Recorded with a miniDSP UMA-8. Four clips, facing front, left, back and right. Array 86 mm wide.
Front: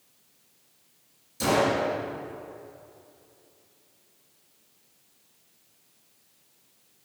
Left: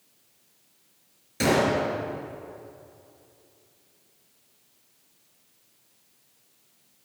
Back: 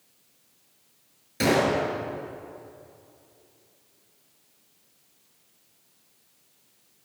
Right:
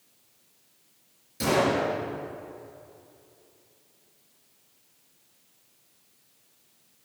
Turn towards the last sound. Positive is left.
turn(degrees=140)